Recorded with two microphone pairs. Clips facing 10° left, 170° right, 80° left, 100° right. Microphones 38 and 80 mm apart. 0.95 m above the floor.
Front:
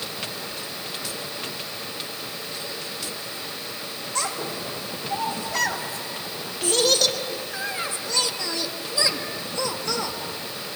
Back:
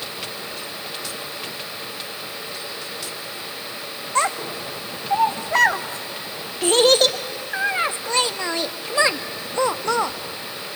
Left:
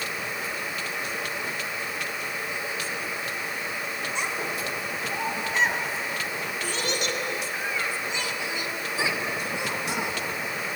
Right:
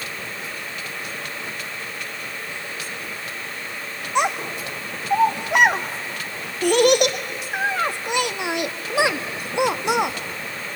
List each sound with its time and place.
4.2 s a child speaking: 115° right, 1.0 m